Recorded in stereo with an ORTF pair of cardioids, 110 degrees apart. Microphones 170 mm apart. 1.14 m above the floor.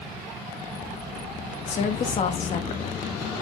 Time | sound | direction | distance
1.7 | a woman speaking | 45° left | 1.7 m